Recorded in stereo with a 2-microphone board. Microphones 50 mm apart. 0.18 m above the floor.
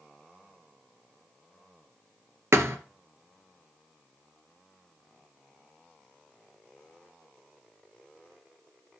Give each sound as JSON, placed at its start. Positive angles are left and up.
{"t": 2.5, "sound": "a thud", "side_deg": -70, "distance_m": 1.3}